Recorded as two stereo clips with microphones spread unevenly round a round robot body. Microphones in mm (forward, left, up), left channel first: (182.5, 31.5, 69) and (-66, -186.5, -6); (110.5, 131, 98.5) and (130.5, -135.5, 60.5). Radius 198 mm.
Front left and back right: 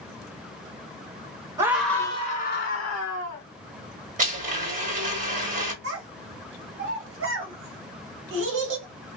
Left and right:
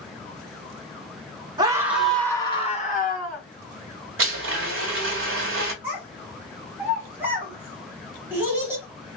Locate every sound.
1.6 s a scream: 110° right, 0.9 m; by 3.4 s 50° left, 1.1 m
4.2 s a blender: 85° right, 1.2 m
5.8 s a child speaking: 160° right, 1.4 m